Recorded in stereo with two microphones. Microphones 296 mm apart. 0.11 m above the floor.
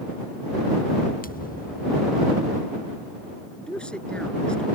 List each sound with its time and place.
1.2 s a thud: 30° left (ahead or behind)
3.6 s a man speaking: 5° left (ahead or behind)